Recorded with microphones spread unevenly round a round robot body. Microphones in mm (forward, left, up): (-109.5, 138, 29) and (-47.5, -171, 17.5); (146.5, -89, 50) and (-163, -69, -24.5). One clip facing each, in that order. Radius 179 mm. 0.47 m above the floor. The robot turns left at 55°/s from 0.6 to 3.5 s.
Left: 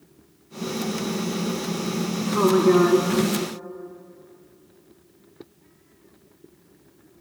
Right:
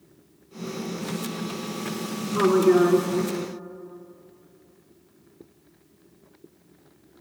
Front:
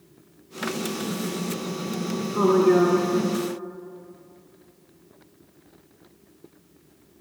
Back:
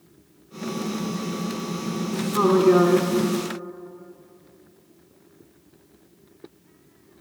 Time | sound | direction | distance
2.3 | a woman speaking | 165° right | 0.7 m